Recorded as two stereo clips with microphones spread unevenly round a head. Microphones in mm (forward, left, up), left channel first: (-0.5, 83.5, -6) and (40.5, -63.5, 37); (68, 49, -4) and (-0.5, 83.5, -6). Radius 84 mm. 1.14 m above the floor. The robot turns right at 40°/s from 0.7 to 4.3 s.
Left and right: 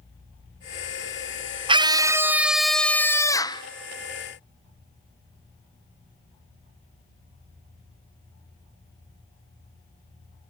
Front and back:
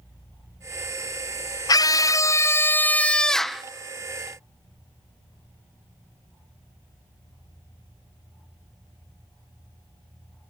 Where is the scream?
10° right, 0.5 m; by 3.6 s 70° left, 0.5 m.